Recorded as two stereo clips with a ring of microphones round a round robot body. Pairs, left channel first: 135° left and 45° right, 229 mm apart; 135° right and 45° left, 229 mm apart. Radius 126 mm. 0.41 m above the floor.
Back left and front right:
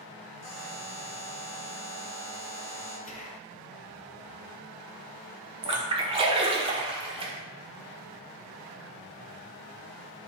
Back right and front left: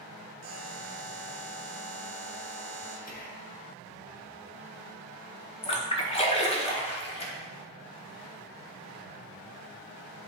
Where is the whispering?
175° right, 1.7 m.